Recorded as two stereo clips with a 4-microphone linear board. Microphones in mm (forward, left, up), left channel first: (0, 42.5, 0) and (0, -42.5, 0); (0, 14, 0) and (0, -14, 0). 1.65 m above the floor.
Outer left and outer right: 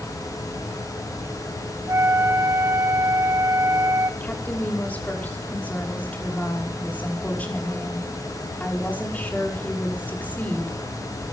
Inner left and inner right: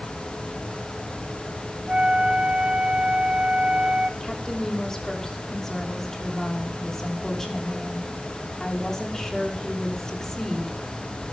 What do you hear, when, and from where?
1.9 s a flute: 40° right (ahead or behind), 1.9 m
4.2 s a woman speaking: 20° left (ahead or behind), 5.5 m